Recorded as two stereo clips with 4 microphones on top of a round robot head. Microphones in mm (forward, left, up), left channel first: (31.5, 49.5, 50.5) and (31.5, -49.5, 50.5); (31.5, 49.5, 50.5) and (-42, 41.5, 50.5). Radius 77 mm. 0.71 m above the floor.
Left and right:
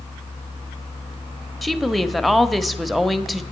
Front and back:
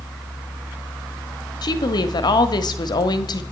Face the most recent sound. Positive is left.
turn(degrees=0)